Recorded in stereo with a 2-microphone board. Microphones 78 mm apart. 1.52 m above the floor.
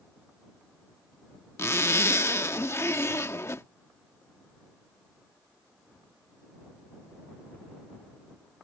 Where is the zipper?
40° left (ahead or behind).